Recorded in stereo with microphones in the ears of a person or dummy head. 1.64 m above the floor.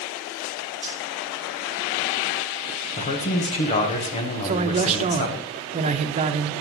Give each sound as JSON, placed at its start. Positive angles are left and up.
{"t": 0.8, "sound": "cutlery clinking", "side_deg": 20, "distance_m": 5.0}
{"t": 3.0, "sound": "a man speaking", "side_deg": 30, "distance_m": 1.3}
{"t": 4.4, "sound": "a man speaking", "side_deg": -35, "distance_m": 0.8}